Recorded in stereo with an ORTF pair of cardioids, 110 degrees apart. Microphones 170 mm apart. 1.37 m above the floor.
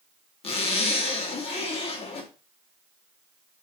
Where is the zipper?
35° left, 0.8 m.